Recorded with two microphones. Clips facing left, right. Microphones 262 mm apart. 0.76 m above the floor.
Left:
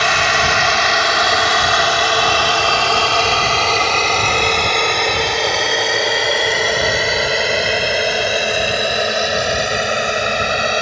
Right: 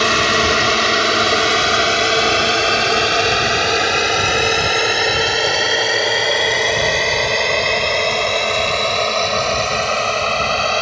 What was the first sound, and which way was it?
A drone, 40° right (ahead or behind).